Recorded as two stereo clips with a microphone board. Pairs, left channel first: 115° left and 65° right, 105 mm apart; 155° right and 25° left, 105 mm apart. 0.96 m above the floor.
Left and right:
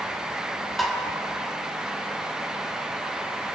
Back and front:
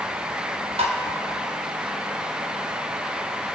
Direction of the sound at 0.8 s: 25° left.